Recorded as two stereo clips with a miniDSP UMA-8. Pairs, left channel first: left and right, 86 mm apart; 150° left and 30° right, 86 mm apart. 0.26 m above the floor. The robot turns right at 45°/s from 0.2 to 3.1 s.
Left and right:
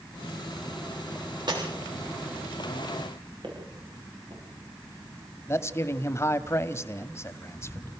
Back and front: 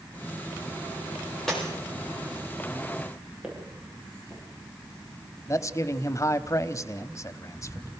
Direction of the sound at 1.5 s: 125° right.